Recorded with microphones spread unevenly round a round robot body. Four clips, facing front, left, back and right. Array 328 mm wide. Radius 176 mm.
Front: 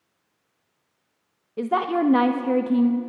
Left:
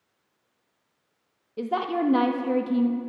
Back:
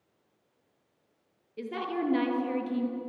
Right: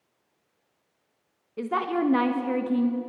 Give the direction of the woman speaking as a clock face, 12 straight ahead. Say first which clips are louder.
Even, front 10 dB; 12 o'clock.